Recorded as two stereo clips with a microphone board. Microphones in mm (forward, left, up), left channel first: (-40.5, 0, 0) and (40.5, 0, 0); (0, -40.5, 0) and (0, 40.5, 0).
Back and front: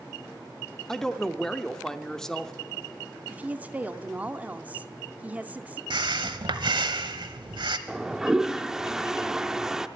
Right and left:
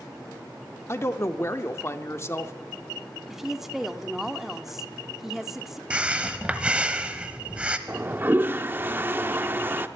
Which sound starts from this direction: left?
A toilet flushing, at 7.9 s.